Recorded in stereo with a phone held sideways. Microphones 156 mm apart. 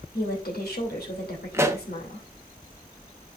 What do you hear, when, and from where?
0.1 s a woman speaking: 85° left, 2.5 m
1.5 s a pop: 15° right (ahead or behind), 0.7 m